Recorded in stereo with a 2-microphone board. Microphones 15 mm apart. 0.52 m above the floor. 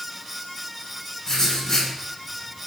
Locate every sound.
1.2 s writing: 25° left (ahead or behind), 1.3 m